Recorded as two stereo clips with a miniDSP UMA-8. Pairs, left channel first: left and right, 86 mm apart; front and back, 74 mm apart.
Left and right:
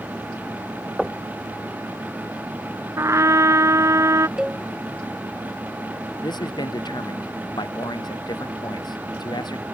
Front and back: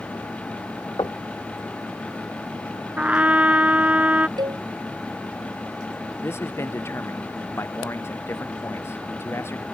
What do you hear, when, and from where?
1.0 s knocking: 5° right
3.0 s a trumpet: 120° right
4.4 s a cowbell: 170° right
6.2 s a man speaking: 55° left